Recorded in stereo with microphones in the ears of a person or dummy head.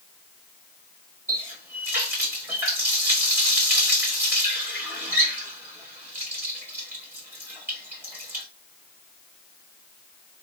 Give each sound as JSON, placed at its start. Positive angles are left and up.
{"t": 1.3, "sound": "a running tap", "side_deg": -15, "distance_m": 1.0}